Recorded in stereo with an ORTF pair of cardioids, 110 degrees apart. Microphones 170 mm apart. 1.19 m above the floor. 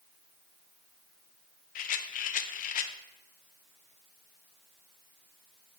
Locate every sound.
1.8 s a rattle: 55° left, 0.6 m